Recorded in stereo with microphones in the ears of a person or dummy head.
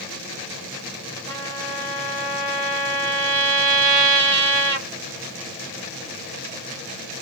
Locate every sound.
1.3 s a trumpet: 25° right (ahead or behind), 1.4 m